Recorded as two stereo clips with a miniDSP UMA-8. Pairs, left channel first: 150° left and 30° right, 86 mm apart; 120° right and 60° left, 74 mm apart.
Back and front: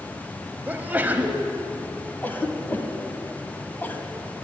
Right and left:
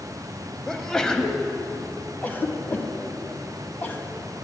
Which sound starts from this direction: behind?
A cough, at 2.2 s.